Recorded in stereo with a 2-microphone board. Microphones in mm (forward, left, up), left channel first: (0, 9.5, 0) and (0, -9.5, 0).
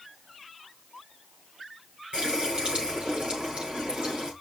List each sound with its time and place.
2.1 s a running tap: 65° right (ahead or behind), 6 m